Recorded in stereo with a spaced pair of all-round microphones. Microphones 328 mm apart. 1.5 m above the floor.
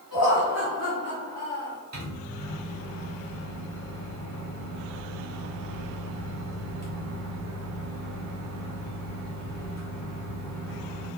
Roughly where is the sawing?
I don't hear sawing.